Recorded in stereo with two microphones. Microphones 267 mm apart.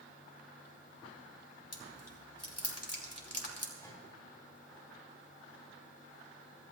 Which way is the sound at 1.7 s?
65° left (ahead or behind).